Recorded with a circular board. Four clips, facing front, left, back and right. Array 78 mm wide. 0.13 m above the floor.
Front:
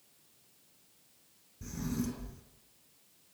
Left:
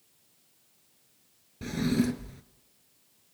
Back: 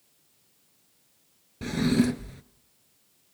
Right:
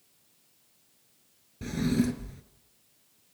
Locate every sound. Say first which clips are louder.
1.6 s a drawer: even, back 13 dB; 175° left, 0.7 m